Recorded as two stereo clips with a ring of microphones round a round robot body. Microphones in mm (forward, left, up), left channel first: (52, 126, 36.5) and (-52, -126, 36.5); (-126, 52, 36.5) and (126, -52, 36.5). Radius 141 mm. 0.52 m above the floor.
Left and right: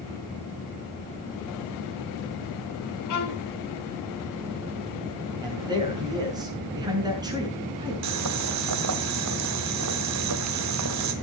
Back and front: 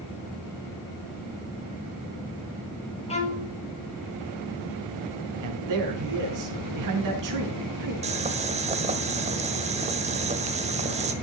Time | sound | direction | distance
3.1 | a violin | 90° left | 5 m
5.4 | a man speaking | 35° right | 5.5 m
8.0 | boiling | 90° right | 1.8 m